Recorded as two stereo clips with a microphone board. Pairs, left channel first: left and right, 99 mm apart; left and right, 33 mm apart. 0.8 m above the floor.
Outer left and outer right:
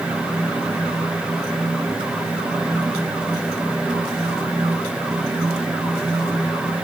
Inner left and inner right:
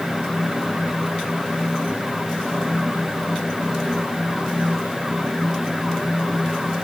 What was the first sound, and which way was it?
Only background noise.